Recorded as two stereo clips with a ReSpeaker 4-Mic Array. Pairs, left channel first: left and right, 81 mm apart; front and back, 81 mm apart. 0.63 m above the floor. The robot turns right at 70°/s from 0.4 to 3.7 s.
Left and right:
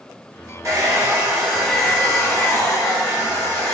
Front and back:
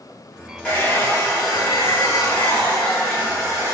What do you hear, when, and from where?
0.6 s a hair dryer: 70° right, 1.6 m; by 3.7 s 145° left, 1.6 m